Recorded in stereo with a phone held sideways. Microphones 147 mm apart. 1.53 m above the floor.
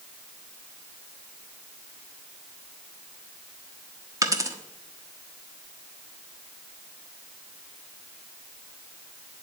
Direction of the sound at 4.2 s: 25° right (ahead or behind).